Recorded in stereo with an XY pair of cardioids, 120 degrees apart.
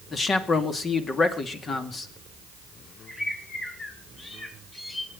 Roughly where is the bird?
Ahead left.